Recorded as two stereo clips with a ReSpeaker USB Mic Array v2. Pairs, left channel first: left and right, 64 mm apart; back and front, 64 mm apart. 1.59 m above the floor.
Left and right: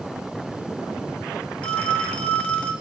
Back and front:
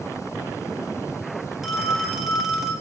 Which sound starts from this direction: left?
A phone ringing, at 1.6 s.